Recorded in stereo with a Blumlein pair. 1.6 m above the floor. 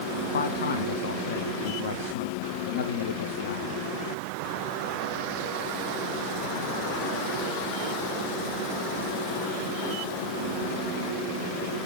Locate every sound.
0.3 s a man speaking: 60° left, 1.3 m